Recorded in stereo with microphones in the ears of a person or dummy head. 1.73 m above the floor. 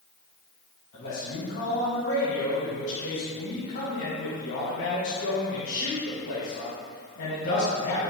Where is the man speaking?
70° left (ahead or behind), 1.8 m.